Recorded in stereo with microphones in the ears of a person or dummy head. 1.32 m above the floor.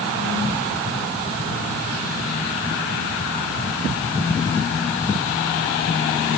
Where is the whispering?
No whispering in this recording.